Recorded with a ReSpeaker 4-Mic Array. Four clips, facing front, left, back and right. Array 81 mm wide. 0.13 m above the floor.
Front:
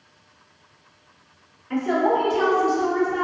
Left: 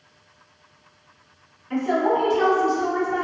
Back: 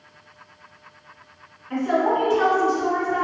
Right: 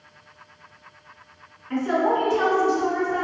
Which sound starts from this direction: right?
A woman speaking, at 1.7 s.